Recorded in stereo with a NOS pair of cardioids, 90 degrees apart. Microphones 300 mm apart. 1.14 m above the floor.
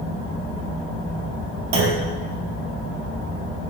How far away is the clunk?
About 0.7 m.